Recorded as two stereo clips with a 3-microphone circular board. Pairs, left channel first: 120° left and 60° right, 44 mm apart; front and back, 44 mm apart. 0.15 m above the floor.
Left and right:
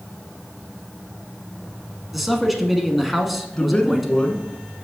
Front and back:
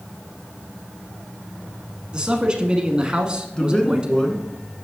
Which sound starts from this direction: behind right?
A man speaking, at 2.1 s.